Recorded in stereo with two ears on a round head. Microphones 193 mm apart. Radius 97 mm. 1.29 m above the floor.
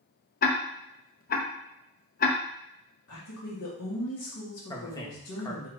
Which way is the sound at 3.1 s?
75° left (ahead or behind).